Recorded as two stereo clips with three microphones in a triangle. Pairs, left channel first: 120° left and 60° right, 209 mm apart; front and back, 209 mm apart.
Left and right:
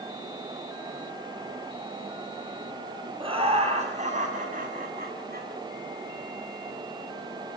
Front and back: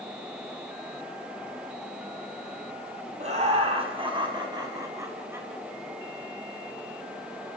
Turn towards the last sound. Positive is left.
turn(degrees=-100)